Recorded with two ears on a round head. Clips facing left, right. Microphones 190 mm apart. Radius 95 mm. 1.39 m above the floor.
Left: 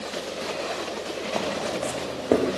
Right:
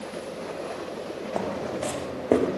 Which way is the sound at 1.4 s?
5° right (ahead or behind).